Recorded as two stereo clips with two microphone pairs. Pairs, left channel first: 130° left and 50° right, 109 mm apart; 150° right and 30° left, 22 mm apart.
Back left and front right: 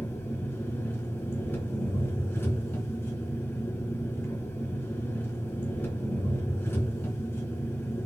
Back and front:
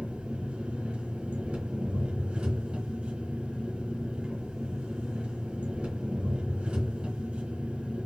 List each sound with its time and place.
0.0 s an engine running: 55° left, 3 m